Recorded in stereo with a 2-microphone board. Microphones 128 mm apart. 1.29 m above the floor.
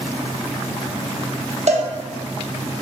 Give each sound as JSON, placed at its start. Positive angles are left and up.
{"t": 1.7, "sound": "a cowbell", "side_deg": -60, "distance_m": 1.2}